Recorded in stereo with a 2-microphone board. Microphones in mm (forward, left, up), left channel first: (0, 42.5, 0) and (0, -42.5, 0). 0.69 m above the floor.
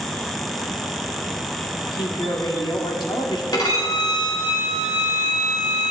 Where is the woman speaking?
60° left (ahead or behind), 1.7 m.